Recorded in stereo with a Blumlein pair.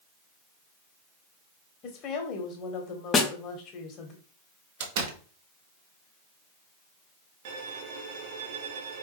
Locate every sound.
1.8 s a woman speaking: 35° left, 1.7 m
3.1 s a snare drum: 20° left, 0.8 m
4.8 s a door slam: 50° right, 1.1 m
7.5 s a violin: 50° right, 1.0 m